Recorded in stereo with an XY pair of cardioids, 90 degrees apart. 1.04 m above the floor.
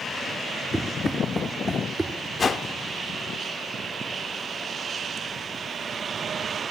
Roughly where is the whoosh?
Ahead left.